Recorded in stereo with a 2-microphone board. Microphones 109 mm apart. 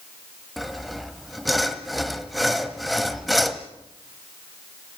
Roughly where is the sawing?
Centre.